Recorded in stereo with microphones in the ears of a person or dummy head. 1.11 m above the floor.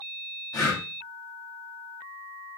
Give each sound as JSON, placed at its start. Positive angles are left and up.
{"t": 0.5, "sound": "breathing", "side_deg": 15, "distance_m": 1.3}